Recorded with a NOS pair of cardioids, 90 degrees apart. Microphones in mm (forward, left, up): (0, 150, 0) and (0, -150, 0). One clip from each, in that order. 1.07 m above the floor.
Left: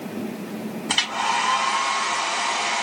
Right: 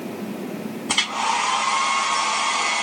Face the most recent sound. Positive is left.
turn(degrees=-5)